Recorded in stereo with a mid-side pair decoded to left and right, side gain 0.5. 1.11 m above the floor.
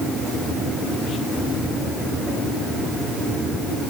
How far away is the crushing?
I don't hear crushing.